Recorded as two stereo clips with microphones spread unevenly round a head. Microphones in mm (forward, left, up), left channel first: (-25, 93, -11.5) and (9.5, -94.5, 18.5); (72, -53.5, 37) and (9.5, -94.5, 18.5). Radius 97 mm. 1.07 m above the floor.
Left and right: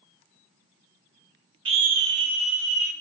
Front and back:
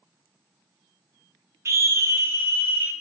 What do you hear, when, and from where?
1.6 s a scream: 145° right, 0.7 m; by 2.9 s 85° right, 1.6 m